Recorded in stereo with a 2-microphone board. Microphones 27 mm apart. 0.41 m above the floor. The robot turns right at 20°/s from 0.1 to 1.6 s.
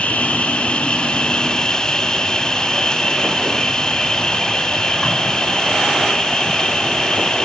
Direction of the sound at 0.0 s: 120° left.